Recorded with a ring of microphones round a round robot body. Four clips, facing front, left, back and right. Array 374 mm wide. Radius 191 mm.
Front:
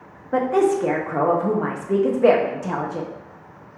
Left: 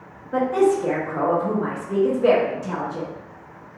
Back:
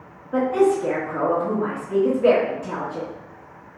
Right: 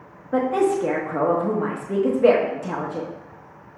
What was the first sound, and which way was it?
A woman speaking, 25° right.